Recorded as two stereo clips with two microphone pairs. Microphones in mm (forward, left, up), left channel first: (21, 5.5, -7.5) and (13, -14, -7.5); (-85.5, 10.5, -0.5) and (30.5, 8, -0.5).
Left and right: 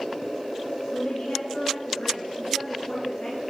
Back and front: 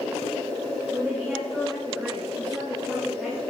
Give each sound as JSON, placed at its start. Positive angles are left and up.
{"t": 0.9, "sound": "a woman speaking", "azimuth_deg": 95, "distance_m": 10.0}